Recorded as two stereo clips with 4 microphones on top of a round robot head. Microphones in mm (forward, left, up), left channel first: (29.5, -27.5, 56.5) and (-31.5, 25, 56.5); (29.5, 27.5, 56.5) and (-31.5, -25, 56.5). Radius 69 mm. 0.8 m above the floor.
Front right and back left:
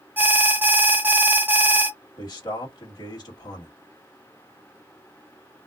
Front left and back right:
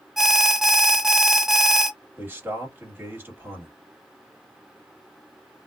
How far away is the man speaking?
About 1.6 m.